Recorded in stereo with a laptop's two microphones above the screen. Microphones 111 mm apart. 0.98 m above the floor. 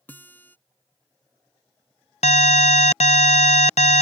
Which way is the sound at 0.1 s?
15° left (ahead or behind).